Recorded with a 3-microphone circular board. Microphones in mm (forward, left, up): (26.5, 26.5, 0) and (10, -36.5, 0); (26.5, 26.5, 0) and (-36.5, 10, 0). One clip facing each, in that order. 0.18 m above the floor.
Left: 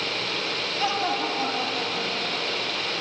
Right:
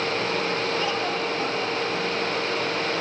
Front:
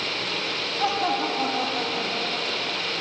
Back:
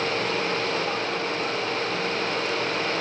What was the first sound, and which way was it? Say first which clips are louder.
Laughter: even, front 3 dB; 5° left.